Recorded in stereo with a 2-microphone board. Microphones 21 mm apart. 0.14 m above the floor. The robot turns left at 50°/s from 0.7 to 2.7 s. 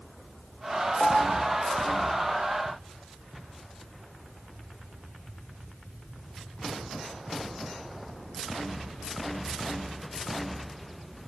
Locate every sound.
1.0 s a piano: 20° left (ahead or behind), 8.5 m; by 1.5 s 45° left (ahead or behind), 8.5 m